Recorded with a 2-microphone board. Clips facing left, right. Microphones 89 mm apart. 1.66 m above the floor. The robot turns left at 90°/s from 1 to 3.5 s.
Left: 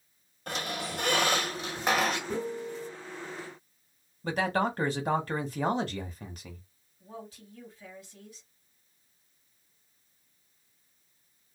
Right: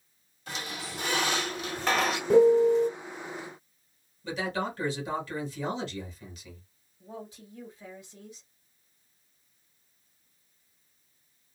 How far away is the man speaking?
About 1.0 m.